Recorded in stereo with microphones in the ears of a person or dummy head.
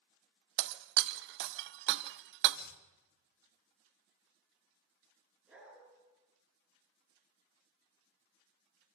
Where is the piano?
I don't hear a piano.